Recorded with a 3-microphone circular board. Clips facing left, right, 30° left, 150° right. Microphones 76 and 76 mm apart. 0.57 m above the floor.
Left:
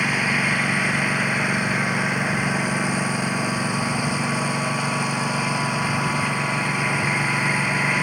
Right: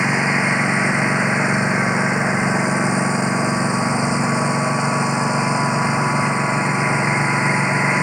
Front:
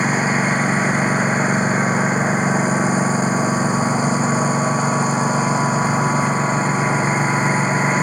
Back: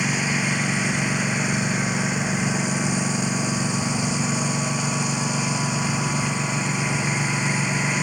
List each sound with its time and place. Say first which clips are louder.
0.0 s a lawn mower: right 4 dB, front 6 dB; 20° right